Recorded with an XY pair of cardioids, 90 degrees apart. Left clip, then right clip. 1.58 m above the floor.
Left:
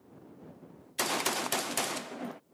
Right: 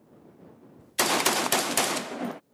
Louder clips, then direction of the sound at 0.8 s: Right 7 dB; 50° right.